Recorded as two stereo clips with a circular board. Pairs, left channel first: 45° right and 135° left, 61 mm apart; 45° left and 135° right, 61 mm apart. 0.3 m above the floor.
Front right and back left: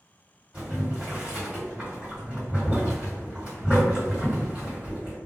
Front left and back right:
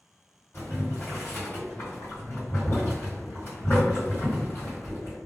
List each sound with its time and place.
0.5 s boiling: 70° left, 1.8 m